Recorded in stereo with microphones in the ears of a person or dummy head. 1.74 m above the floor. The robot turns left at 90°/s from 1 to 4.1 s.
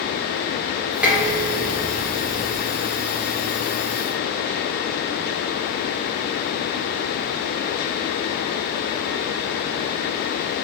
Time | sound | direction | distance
1.0 | dishes clattering | 10° right (ahead or behind) | 0.9 m